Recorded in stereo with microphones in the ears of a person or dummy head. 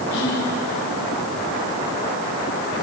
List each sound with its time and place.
0.1 s whispering: 50° left (ahead or behind), 5 m